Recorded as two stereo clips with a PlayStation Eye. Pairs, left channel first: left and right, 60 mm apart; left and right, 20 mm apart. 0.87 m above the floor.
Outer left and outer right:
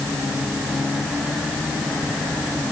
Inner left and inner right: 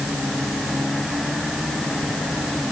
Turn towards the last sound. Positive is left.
No sound to turn to.